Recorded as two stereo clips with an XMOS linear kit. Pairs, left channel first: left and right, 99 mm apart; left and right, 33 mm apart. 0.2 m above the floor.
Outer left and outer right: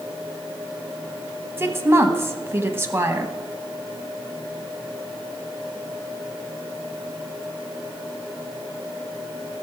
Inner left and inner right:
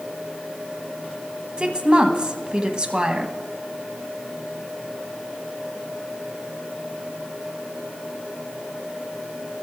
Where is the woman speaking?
25° right (ahead or behind), 1.0 m.